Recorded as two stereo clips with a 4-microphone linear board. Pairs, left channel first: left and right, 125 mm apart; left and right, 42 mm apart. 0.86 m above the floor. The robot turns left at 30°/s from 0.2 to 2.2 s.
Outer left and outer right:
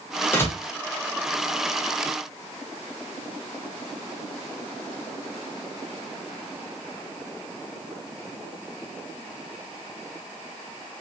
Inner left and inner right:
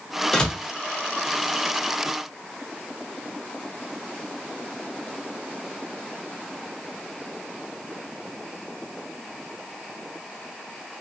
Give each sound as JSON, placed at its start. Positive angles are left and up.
{"t": 0.3, "sound": "a door slam", "side_deg": 15, "distance_m": 0.9}